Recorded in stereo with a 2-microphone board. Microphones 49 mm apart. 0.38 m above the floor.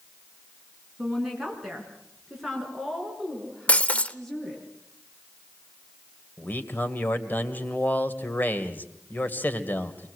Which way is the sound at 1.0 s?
5° right (ahead or behind).